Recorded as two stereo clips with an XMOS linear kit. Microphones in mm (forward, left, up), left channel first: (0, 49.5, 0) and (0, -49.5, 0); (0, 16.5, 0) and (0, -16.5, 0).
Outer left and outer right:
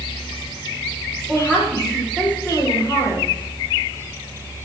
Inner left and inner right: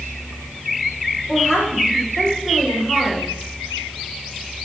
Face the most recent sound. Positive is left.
turn(degrees=-15)  # may be behind; listen again after turning